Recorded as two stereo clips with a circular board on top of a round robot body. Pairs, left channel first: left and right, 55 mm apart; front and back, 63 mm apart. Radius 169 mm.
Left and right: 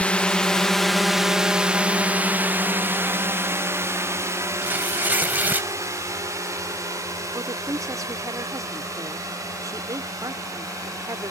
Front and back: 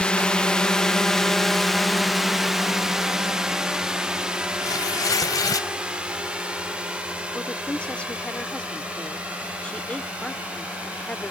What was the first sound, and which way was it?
A drone, 55° left.